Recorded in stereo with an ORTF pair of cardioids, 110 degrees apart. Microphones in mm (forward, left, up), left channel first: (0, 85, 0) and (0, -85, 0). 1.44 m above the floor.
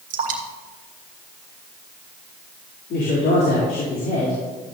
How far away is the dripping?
About 2.5 m.